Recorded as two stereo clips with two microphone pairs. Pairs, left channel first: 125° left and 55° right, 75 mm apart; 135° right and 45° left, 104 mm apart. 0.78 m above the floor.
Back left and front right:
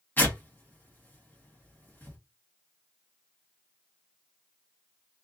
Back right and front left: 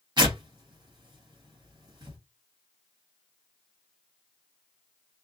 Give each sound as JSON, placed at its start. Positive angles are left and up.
{"t": 0.2, "sound": "tearing paper", "azimuth_deg": 70, "distance_m": 1.2}